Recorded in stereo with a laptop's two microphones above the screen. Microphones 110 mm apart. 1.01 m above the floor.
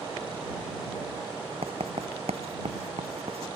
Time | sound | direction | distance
1.6 | writing | 70° right (ahead or behind) | ?